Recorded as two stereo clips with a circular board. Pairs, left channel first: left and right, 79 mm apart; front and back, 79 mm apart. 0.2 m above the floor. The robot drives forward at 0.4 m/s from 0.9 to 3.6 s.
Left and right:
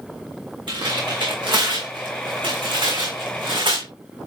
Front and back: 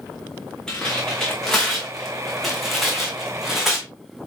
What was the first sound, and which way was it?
Tearing paper, 80° right.